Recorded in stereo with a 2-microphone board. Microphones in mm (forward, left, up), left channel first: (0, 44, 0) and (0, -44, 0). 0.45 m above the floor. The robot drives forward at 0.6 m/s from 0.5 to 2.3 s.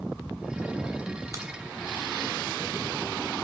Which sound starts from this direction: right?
A crack, at 1.3 s.